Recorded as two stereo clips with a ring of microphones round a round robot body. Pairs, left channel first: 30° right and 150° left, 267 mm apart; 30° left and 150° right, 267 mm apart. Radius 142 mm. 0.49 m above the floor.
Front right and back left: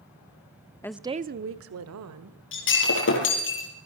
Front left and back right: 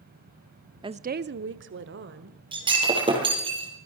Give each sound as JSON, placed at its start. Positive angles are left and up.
{"t": 0.8, "sound": "a woman speaking", "azimuth_deg": -95, "distance_m": 0.8}
{"t": 2.5, "sound": "breaking glass", "azimuth_deg": -75, "distance_m": 5.0}